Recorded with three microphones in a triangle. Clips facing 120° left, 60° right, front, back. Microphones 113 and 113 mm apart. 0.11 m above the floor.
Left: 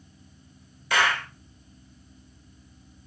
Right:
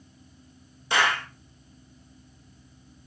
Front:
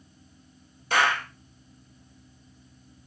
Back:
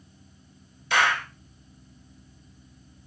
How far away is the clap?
About 1.2 m.